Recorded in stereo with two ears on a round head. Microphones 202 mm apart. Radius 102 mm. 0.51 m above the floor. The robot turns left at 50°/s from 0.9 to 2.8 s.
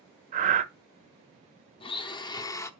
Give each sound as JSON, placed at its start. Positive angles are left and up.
{"t": 0.3, "sound": "breathing", "side_deg": -35, "distance_m": 0.5}
{"t": 1.8, "sound": "a blender", "side_deg": 25, "distance_m": 0.6}